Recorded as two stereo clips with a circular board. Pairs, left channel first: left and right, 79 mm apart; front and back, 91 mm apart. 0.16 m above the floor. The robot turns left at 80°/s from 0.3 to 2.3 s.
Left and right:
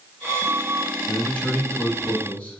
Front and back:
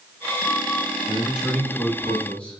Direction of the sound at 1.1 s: 145° left.